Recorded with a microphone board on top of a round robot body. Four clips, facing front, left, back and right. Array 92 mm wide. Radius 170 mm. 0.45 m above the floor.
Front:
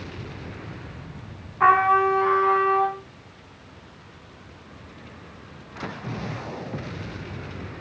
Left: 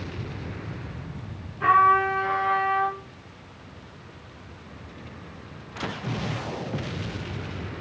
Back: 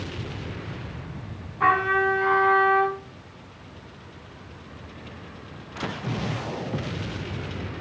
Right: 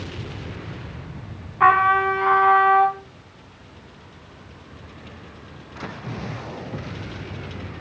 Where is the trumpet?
65° right, 4 m.